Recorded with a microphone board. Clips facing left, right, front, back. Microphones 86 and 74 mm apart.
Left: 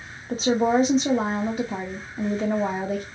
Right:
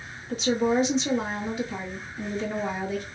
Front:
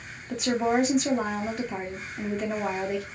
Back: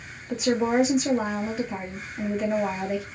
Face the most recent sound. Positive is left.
turn(degrees=95)